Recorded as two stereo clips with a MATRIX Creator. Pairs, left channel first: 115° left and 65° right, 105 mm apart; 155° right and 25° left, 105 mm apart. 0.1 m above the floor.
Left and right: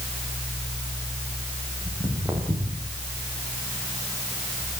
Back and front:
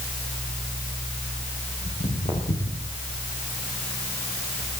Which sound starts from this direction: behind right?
Footsteps, at 1.9 s.